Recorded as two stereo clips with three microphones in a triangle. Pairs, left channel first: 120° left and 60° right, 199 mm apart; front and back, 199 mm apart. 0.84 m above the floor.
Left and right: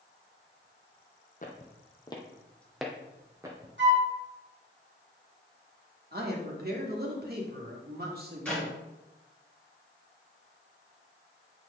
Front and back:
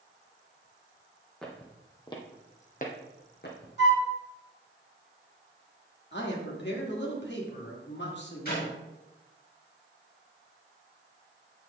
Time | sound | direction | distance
1.4 | footsteps | 85° left | 1.3 m
3.8 | a flute | 30° right | 1.9 m
6.1 | a man speaking | 25° right | 1.8 m
8.4 | a clap | 35° left | 3.5 m